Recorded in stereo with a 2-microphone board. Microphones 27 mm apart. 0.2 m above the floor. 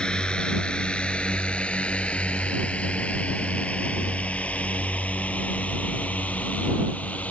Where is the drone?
30° left (ahead or behind); by 7.3 s 60° left (ahead or behind).